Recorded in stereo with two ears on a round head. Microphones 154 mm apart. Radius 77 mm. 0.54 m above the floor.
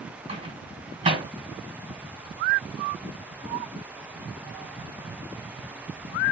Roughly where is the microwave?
Right.